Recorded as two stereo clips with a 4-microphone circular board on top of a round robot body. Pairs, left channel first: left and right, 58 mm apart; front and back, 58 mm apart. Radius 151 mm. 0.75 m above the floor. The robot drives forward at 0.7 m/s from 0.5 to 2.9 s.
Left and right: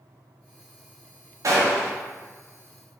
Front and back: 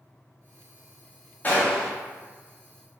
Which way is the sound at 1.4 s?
60° right.